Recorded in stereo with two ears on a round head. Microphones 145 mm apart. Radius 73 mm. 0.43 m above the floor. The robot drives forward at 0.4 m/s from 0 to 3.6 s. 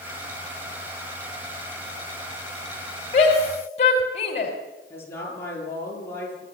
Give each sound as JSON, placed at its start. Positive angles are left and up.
{"t": 3.1, "sound": "a shout", "side_deg": 45, "distance_m": 3.0}
{"t": 4.9, "sound": "a woman speaking", "side_deg": 15, "distance_m": 8.5}